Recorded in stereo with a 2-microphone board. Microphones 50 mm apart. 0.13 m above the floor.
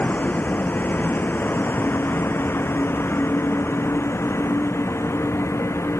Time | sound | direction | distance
0.0 | a vehicle | 35° left (ahead or behind) | ?